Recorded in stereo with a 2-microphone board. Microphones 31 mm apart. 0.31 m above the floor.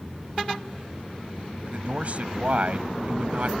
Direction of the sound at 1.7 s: 50° right (ahead or behind).